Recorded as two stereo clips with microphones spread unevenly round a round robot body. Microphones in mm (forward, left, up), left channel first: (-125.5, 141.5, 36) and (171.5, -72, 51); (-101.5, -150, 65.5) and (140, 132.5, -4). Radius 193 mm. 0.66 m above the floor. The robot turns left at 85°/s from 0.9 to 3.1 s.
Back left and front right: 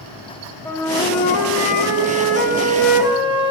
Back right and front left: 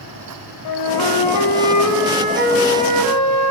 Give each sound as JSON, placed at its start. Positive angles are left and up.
{"t": 0.7, "sound": "a flute", "azimuth_deg": -135, "distance_m": 1.5}